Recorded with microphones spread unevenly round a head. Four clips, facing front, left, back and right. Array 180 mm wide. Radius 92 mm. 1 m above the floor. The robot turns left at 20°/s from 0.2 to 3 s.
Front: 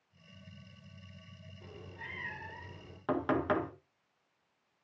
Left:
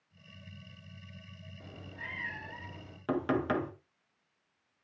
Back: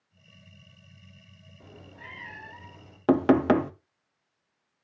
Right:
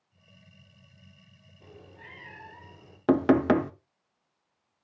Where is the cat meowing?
140° left, 7 m; by 3.0 s 110° left, 7 m.